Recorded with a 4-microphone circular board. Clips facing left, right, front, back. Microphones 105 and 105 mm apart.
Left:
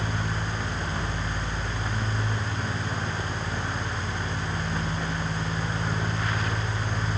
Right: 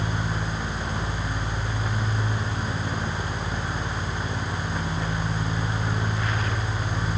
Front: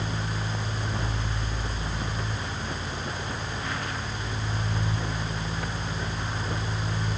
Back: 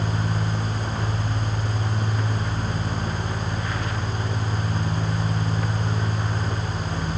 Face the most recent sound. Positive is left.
No sound to turn to.